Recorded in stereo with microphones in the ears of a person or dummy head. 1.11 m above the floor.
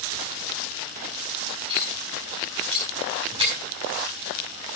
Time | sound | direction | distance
1.7 | cutlery clinking | 25° right (ahead or behind) | 5 m